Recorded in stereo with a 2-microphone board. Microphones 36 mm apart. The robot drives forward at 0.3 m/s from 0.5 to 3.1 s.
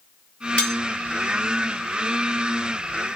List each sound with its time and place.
0.6 s cutlery clinking: 40° left (ahead or behind), 5.5 m